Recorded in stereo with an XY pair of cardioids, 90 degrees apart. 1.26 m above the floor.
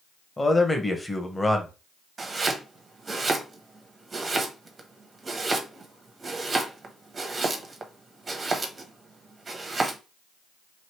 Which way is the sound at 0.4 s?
15° left.